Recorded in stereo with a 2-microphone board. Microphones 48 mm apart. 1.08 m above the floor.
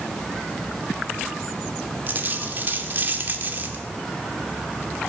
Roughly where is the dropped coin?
Right.